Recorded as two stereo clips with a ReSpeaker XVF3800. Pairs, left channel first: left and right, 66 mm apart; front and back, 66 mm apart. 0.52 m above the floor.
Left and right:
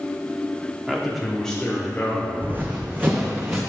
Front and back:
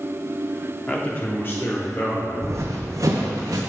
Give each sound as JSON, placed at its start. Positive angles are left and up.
{"t": 0.9, "sound": "a man speaking", "azimuth_deg": -20, "distance_m": 1.1}
{"t": 2.4, "sound": "running footsteps", "azimuth_deg": -145, "distance_m": 1.1}